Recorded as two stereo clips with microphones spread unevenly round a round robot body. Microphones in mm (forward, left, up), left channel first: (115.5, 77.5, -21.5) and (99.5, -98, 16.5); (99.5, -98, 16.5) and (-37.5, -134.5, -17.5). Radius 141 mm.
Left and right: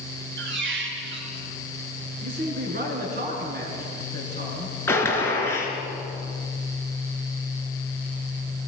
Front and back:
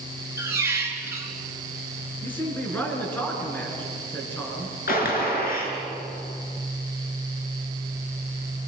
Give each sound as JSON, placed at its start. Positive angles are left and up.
{"t": 0.4, "sound": "a squeak", "azimuth_deg": -90, "distance_m": 3.5}
{"t": 2.2, "sound": "a man speaking", "azimuth_deg": -65, "distance_m": 6.5}
{"t": 4.9, "sound": "a gunshot", "azimuth_deg": 10, "distance_m": 5.0}